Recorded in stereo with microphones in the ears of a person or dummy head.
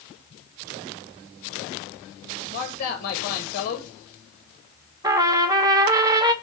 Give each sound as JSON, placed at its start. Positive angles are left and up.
{"t": 2.5, "sound": "a man speaking", "side_deg": 50, "distance_m": 1.1}
{"t": 5.0, "sound": "a trumpet", "side_deg": -15, "distance_m": 0.6}